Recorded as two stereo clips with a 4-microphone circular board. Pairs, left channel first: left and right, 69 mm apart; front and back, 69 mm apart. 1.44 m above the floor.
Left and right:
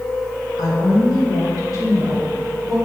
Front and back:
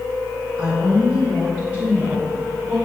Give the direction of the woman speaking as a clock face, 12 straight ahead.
9 o'clock.